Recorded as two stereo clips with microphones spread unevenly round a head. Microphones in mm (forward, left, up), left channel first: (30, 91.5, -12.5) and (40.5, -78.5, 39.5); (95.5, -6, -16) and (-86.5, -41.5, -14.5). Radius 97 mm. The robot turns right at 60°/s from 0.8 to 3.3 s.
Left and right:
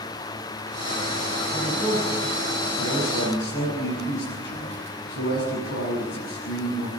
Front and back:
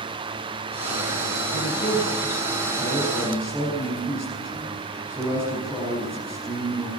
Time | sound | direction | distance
1.5 | a man speaking | 5° left | 7 m